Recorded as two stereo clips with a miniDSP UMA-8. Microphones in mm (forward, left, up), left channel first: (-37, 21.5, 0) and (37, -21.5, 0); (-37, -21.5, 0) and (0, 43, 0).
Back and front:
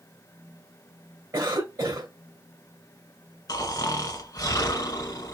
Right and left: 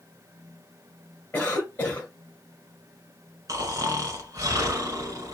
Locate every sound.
1.3 s a cough: 60° right, 2.5 m
3.5 s snoring: 105° left, 1.7 m